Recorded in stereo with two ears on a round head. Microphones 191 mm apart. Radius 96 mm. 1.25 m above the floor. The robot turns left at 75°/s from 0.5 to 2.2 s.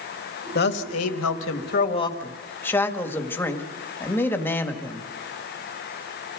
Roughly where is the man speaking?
Behind left.